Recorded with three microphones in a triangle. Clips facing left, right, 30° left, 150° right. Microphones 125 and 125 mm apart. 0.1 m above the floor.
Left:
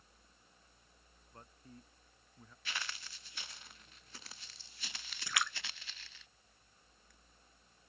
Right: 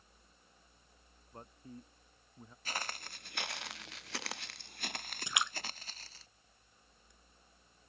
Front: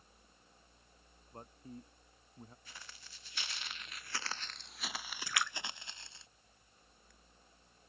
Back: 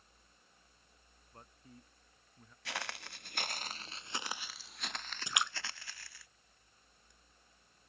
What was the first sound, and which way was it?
A man speaking, 30° right.